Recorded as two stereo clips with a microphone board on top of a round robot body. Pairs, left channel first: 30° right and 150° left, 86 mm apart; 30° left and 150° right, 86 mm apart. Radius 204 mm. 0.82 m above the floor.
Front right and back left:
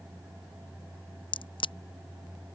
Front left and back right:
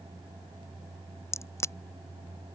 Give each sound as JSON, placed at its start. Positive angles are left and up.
{"t": 1.3, "sound": "a crack", "azimuth_deg": -25}